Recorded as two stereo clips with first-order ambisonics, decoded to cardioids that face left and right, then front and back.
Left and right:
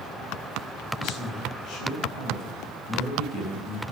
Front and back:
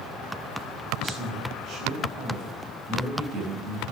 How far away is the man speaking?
About 5 m.